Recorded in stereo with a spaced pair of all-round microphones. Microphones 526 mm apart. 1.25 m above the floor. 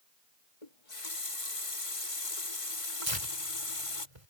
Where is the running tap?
80° left.